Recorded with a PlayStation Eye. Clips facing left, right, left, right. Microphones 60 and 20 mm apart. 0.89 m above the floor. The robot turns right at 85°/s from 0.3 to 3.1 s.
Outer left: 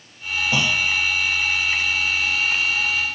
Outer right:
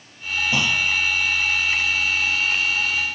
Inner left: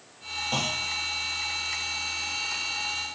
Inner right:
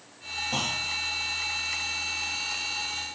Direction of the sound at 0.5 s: 60° left (ahead or behind).